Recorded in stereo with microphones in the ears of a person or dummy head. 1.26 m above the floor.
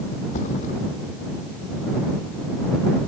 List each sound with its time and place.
0.3 s a thud: 45° left (ahead or behind)